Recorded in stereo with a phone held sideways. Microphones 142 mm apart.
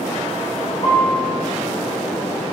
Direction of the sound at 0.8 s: 50° left (ahead or behind).